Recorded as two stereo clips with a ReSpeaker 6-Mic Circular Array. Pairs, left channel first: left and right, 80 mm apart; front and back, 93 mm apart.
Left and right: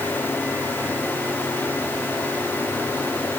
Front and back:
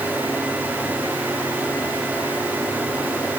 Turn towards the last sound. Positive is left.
No sound to turn to.